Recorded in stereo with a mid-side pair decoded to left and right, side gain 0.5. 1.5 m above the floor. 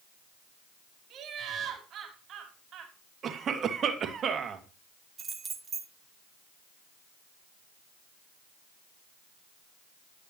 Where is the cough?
50° right, 2.5 m.